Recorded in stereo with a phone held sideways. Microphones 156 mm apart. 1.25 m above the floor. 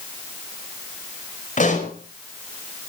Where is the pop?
55° left (ahead or behind), 4.5 m.